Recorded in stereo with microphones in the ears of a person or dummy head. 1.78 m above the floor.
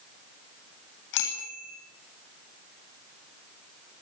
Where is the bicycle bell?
65° left (ahead or behind), 9 m.